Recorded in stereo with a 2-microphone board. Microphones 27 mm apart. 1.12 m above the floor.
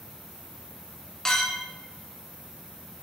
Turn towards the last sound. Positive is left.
turn(degrees=20)  # may be behind; listen again after turning